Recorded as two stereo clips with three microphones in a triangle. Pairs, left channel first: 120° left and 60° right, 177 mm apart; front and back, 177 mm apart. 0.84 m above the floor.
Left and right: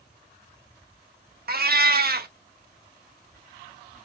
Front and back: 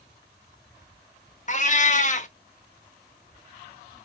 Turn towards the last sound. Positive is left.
turn(degrees=-40)